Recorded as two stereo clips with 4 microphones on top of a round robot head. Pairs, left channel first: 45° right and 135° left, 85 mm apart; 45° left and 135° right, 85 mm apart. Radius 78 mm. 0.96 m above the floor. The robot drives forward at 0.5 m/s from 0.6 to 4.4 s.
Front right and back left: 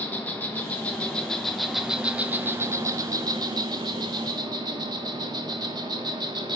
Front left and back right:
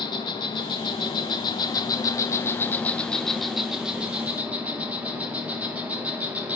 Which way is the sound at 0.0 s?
25° left.